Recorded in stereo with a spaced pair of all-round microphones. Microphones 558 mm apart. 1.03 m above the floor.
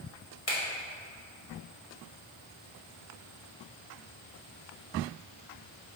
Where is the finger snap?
75° left (ahead or behind), 1.7 m.